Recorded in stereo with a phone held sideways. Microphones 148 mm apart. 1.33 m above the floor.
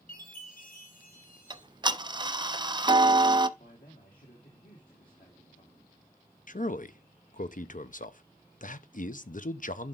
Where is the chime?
70° left (ahead or behind), 5 m.